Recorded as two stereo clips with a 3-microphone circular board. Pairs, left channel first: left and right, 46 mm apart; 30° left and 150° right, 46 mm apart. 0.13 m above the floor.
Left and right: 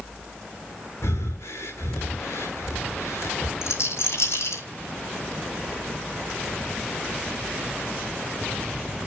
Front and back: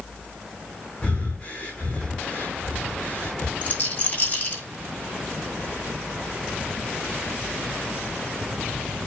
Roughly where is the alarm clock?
No alarm clock in this recording.